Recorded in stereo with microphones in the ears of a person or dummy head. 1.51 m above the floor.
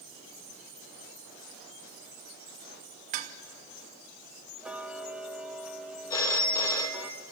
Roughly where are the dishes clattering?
Right.